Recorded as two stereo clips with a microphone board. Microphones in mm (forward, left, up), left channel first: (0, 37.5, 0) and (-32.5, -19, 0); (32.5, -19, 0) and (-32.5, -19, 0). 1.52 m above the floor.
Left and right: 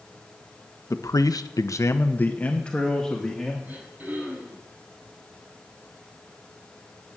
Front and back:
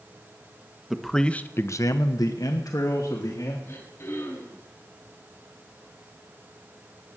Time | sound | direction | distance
0.9 | a man speaking | 95° left | 1.2 m
3.6 | throat clearing | 50° right | 9 m